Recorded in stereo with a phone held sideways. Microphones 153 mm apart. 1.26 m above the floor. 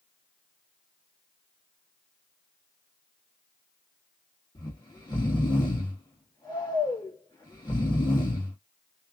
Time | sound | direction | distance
4.5 | snoring | 30° left (ahead or behind) | 1.5 m